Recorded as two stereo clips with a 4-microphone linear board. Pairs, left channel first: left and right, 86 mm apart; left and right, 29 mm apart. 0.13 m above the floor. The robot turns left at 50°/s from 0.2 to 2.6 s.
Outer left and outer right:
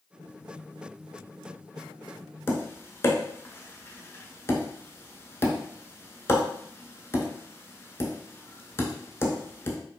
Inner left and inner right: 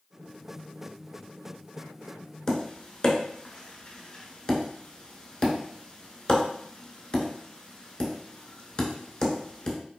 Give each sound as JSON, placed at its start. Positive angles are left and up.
{"t": 2.5, "sound": "tapping", "side_deg": 30, "distance_m": 0.7}